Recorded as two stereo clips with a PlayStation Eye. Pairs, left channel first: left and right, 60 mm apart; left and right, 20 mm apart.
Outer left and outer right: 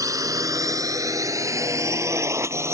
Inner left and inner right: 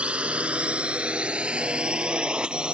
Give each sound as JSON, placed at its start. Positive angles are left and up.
{"t": 0.0, "sound": "a drone", "side_deg": -70}